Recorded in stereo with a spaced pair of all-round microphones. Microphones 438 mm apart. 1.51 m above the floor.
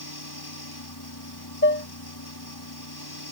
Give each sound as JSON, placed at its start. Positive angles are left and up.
{"t": 0.0, "sound": "a fan", "side_deg": 55}
{"t": 1.6, "sound": "dishes clattering", "side_deg": 25}